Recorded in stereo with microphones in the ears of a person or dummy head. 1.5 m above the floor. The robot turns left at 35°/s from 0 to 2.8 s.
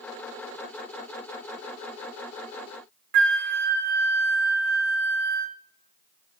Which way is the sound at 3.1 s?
65° right (ahead or behind).